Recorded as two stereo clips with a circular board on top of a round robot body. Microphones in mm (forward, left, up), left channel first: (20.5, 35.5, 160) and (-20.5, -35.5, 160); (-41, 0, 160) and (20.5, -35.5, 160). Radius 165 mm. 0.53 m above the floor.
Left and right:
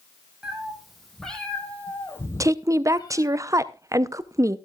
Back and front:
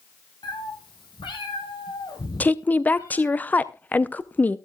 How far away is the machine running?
I don't hear a machine running.